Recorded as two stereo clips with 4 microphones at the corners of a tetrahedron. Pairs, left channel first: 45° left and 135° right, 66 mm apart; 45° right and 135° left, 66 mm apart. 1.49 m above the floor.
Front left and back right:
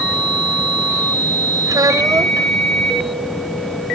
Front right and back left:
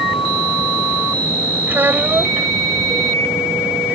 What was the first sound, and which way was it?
A child speaking, 165° right.